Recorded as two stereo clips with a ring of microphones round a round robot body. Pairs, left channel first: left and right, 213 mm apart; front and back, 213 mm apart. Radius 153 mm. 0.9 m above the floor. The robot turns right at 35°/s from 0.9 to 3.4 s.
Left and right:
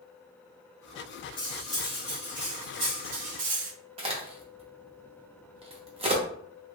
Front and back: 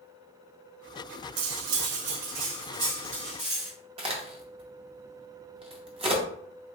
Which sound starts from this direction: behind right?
A crack, at 4.0 s.